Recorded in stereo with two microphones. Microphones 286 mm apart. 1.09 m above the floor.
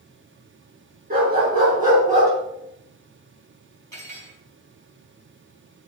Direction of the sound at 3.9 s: 75° right (ahead or behind).